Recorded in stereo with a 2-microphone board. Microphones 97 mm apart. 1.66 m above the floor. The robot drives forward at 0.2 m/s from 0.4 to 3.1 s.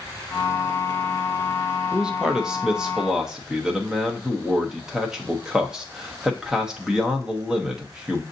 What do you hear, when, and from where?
1.9 s a man speaking: 10° right (ahead or behind), 0.6 m; by 8.2 s 5° right (ahead or behind), 0.8 m